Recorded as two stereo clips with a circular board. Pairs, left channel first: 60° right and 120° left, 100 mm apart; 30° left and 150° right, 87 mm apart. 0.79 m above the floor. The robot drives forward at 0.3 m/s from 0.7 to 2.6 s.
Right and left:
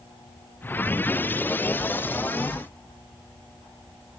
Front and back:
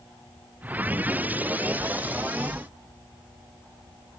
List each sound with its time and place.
Only background noise.